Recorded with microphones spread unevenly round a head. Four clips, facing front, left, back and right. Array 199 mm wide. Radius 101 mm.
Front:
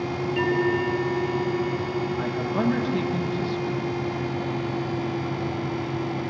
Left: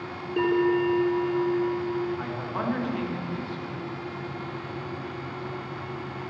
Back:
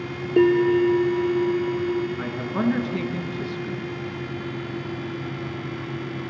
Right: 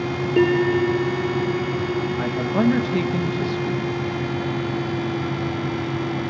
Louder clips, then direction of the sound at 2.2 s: Right 10 dB, front 1 dB; 100° right.